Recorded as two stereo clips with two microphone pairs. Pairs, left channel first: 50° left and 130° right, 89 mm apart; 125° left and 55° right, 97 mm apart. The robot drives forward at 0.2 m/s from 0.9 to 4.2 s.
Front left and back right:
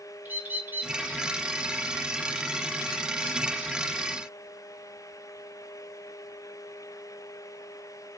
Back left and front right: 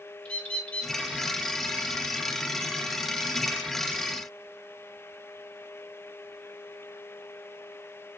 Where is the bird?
160° right, 0.5 m.